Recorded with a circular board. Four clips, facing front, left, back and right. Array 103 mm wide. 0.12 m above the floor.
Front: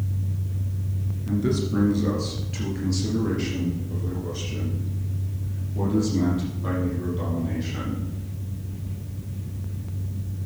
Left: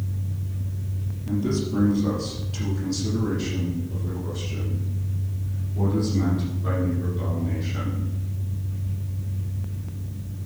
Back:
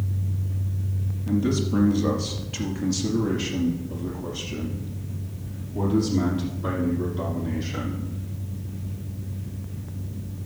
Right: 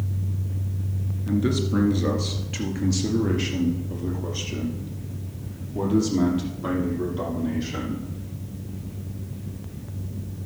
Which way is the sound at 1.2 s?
85° right.